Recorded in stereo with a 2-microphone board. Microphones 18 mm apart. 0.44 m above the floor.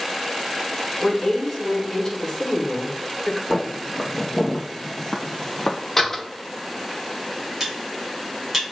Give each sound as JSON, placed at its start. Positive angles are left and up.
{"t": 1.0, "sound": "a woman speaking", "side_deg": 30, "distance_m": 1.2}
{"t": 3.5, "sound": "footsteps", "side_deg": 5, "distance_m": 1.7}
{"t": 6.0, "sound": "a door slam", "side_deg": 20, "distance_m": 0.8}
{"t": 7.6, "sound": "cutlery clinking", "side_deg": -20, "distance_m": 1.5}